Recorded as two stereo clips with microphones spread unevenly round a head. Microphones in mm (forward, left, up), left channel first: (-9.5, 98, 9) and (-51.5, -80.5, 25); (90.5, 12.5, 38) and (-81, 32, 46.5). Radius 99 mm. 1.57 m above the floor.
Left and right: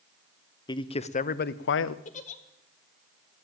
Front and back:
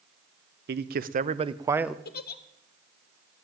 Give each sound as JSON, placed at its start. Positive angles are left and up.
{"t": 0.7, "sound": "a man speaking", "azimuth_deg": 145, "distance_m": 0.9}
{"t": 2.0, "sound": "a giggle", "azimuth_deg": 25, "distance_m": 1.0}